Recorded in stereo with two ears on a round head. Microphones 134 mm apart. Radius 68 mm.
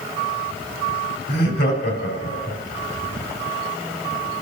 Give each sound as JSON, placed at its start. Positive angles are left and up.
{"t": 1.3, "sound": "laughter", "side_deg": 70, "distance_m": 3.5}